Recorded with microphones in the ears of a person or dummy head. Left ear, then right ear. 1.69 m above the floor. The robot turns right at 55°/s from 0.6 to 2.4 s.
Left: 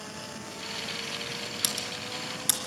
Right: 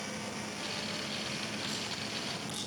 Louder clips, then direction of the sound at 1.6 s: Left 4 dB; 60° left (ahead or behind).